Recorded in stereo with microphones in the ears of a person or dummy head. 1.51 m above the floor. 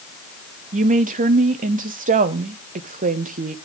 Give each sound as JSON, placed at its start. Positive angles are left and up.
{"t": 0.7, "sound": "a woman speaking", "side_deg": -40, "distance_m": 1.0}